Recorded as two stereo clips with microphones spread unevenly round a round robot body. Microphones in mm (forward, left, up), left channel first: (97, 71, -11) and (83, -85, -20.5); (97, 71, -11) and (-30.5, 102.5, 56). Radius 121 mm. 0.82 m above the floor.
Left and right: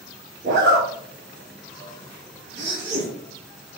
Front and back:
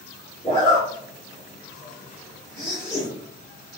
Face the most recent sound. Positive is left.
turn(degrees=-95)